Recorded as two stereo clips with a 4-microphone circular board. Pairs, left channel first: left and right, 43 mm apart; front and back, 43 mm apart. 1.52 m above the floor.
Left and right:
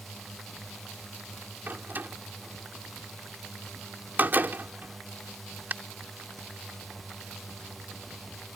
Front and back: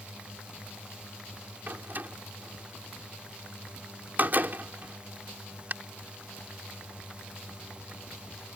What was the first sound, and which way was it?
A drone, 170° left.